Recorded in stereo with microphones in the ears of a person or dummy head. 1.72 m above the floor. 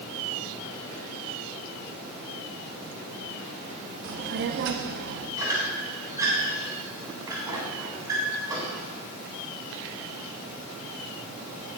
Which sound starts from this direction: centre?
A squeak, at 5.4 s.